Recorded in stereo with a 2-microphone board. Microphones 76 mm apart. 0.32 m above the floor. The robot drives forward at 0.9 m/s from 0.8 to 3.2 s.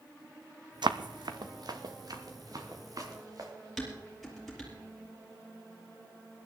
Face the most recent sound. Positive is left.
turn(degrees=0)  # may be behind; listen again after turning